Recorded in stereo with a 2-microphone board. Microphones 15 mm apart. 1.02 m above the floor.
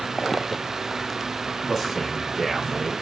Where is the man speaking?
25° right (ahead or behind), 1.7 m; by 2.9 s 50° right (ahead or behind), 0.8 m.